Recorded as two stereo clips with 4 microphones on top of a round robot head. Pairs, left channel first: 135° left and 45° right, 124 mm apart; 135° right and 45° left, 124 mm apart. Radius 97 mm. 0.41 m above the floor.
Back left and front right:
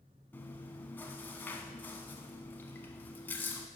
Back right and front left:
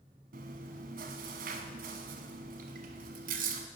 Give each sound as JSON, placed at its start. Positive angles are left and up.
{"t": 0.3, "sound": "chewing", "azimuth_deg": 60, "distance_m": 0.6}